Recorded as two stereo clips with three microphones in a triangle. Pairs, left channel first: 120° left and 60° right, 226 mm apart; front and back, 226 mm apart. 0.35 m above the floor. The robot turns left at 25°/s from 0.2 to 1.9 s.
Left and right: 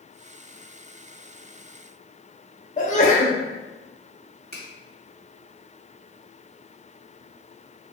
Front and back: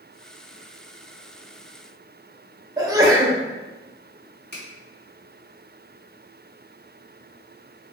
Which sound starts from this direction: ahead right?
A finger snap, at 4.5 s.